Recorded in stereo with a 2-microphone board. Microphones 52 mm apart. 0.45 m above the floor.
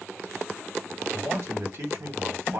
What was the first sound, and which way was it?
A man speaking, 70° right (ahead or behind).